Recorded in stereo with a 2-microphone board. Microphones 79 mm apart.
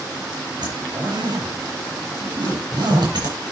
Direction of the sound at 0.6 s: 70° right (ahead or behind).